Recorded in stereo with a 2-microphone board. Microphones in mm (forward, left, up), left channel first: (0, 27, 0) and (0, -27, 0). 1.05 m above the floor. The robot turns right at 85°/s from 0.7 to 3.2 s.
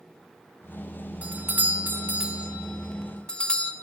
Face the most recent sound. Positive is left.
turn(degrees=30)